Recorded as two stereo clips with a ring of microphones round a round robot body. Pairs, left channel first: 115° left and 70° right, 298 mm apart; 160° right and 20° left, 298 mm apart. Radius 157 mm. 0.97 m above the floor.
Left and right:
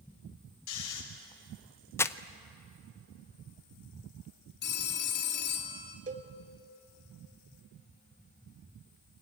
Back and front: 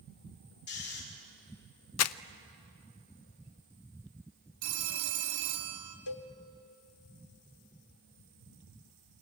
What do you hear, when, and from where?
0.7 s snoring: 150° left, 4 m
2.0 s crumpling: 170° right, 0.6 m
4.6 s a phone ringing: 55° left, 2.0 m
6.1 s a cowbell: 135° right, 1.2 m